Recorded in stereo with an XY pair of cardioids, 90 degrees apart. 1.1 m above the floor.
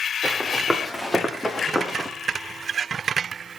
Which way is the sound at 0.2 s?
5° left.